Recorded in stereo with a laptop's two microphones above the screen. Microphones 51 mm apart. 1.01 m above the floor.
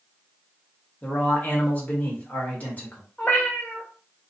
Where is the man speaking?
30° left (ahead or behind), 1.3 m.